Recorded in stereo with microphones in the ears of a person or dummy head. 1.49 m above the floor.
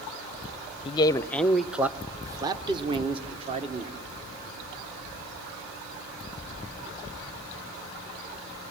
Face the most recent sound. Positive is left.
turn(degrees=-40)  # may be behind; listen again after turning